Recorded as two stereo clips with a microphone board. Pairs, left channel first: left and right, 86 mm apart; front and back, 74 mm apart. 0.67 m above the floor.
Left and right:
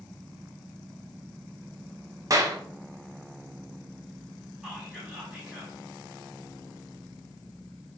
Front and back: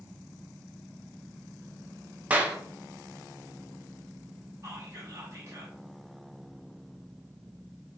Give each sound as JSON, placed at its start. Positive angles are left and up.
{"t": 2.3, "sound": "a clap", "azimuth_deg": -115, "distance_m": 0.5}
{"t": 4.6, "sound": "whispering", "azimuth_deg": -165, "distance_m": 1.2}